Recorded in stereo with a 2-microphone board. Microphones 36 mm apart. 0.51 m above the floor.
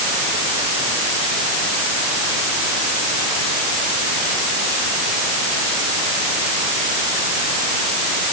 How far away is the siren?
No siren in this recording.